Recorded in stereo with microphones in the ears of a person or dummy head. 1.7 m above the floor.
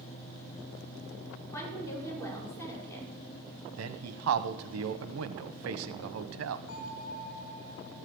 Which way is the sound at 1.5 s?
20° left (ahead or behind).